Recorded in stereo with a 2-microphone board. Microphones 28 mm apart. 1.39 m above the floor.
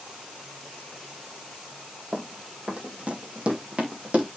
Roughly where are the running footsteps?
Right.